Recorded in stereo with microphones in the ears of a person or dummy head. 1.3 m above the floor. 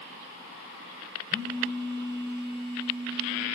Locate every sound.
1.3 s a phone buzzing: 25° right (ahead or behind), 5.5 m